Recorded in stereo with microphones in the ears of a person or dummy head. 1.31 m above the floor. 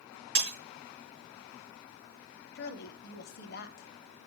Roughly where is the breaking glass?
Right.